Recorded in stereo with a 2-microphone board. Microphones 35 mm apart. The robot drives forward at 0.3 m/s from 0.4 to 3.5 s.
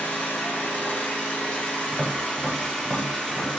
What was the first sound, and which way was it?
An engine running, 50° left (ahead or behind).